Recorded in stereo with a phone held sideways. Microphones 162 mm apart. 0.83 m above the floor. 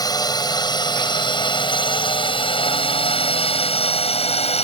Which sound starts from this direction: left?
A drone, at 0.0 s.